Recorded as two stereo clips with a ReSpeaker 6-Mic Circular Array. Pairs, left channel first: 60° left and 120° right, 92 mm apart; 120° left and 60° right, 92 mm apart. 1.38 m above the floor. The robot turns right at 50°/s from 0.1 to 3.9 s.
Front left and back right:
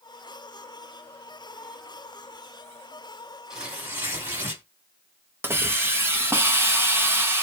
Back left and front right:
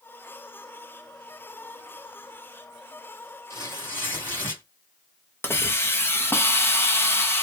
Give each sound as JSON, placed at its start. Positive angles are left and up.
{"t": 3.5, "sound": "tearing paper", "azimuth_deg": 160, "distance_m": 1.7}
{"t": 5.4, "sound": "a hiss", "azimuth_deg": 180, "distance_m": 0.7}